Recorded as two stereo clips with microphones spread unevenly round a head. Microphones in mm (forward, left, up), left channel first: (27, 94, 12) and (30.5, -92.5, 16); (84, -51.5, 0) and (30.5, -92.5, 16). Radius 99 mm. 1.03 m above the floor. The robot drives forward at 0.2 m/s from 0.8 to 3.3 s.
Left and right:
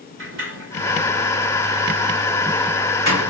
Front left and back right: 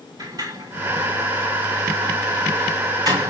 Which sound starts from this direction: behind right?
A sliding door, at 0.2 s.